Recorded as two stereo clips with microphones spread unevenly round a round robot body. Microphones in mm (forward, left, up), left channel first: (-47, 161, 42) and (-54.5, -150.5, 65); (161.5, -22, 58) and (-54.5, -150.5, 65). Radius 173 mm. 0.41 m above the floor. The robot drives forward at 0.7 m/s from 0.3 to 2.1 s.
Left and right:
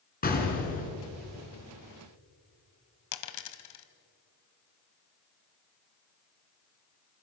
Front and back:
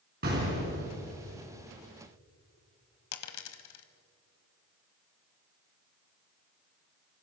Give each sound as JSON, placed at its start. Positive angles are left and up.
{"t": 0.2, "sound": "an explosion", "azimuth_deg": 150, "distance_m": 4.0}
{"t": 3.1, "sound": "a dropped coin", "azimuth_deg": 55, "distance_m": 1.4}